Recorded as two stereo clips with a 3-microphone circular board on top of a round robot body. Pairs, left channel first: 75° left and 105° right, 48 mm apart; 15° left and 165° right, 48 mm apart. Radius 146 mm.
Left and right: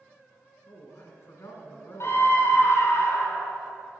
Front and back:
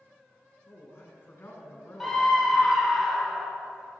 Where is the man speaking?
65° left, 1.5 m.